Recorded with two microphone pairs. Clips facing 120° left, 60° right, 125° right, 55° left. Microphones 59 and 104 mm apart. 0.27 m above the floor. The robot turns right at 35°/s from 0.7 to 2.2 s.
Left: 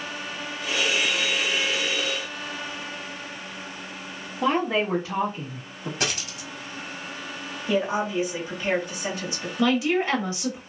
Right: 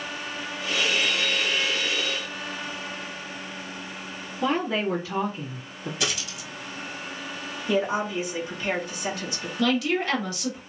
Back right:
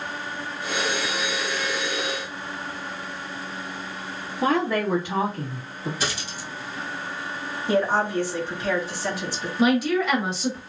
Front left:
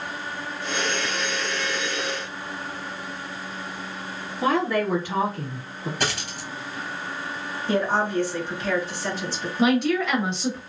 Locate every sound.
4.4 s a woman speaking: 165° left, 1.3 m
6.0 s a dropped coin: 85° left, 0.9 m
7.7 s a woman speaking: 165° left, 1.6 m
9.6 s a woman speaking: 155° left, 1.0 m